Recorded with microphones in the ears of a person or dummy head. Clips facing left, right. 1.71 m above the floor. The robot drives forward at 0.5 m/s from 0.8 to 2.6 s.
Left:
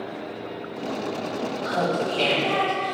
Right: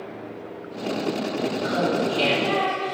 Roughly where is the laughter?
Centre.